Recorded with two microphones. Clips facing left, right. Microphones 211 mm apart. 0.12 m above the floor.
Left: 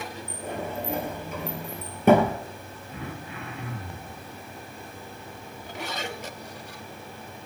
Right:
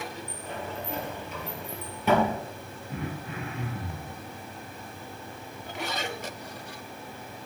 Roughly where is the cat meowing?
I don't hear a cat meowing.